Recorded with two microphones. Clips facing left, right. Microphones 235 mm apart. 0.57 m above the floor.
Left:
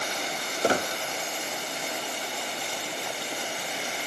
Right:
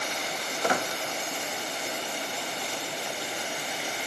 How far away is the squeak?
About 0.6 m.